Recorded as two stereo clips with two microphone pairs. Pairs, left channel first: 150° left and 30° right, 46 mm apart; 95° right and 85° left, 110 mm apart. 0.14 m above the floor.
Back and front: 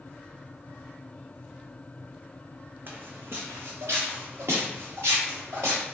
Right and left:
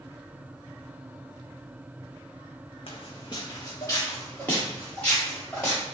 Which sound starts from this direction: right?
Footsteps, at 2.9 s.